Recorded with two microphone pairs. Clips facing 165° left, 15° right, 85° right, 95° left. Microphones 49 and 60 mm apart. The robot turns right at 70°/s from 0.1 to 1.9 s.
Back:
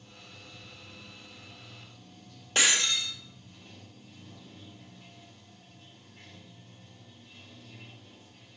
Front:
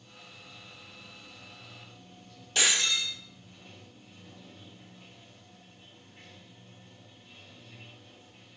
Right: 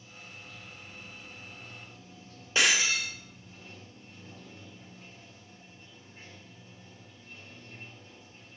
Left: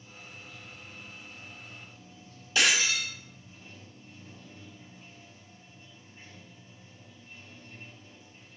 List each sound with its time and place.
0.0 s running water: 145° left, 2 m; by 8.6 s 90° right, 2 m
2.5 s breaking glass: 145° right, 3 m